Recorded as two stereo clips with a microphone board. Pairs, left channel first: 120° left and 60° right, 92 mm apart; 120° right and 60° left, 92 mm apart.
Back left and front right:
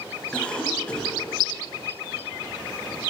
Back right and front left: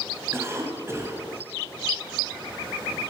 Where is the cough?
55° left, 1.6 m.